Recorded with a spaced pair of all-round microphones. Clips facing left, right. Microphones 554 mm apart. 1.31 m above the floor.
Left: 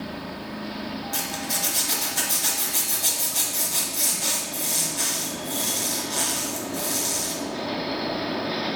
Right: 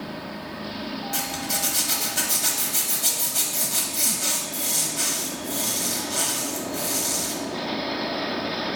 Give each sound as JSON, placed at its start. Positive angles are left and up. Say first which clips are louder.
{"t": 1.1, "sound": "a zipper", "louder": "right 1 dB", "side_deg": -35, "distance_m": 1.3}